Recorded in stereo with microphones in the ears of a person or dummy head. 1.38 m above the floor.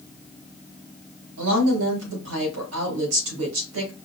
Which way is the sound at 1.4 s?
75° right (ahead or behind).